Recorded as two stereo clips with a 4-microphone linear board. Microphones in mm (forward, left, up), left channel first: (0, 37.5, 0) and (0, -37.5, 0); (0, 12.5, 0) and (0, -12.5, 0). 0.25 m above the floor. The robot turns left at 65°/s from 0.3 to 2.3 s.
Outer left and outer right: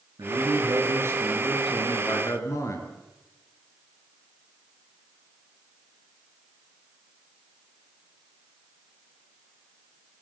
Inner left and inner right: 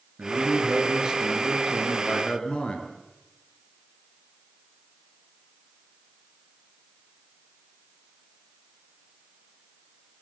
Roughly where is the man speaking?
Right.